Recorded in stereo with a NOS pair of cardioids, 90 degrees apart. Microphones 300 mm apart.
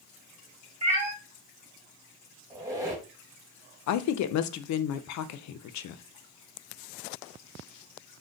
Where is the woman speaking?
65° left, 0.5 m.